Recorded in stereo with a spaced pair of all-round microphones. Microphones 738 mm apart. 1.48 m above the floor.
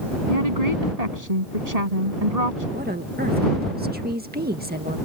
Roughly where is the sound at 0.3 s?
Right.